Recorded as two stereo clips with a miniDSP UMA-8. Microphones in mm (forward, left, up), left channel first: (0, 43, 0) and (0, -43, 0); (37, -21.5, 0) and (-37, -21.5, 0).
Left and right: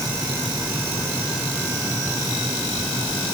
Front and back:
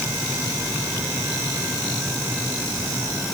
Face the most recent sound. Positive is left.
No sound to turn to.